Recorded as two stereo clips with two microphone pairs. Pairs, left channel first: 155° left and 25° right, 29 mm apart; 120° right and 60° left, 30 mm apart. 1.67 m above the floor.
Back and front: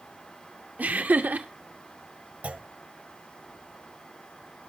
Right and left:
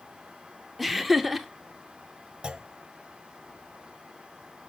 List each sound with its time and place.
0.8 s laughter: 25° right, 1.0 m
2.4 s a clunk: straight ahead, 1.0 m